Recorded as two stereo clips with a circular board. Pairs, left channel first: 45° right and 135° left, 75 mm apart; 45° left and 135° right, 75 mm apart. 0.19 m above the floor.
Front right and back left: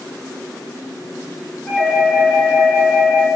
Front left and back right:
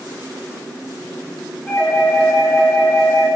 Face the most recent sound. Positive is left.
turn(degrees=25)